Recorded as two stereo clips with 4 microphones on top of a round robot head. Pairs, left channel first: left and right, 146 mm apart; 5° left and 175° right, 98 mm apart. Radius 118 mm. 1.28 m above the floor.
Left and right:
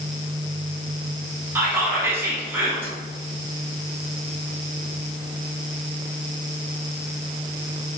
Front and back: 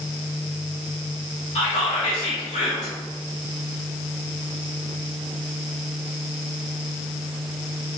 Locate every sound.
1.6 s whispering: 15° right, 0.9 m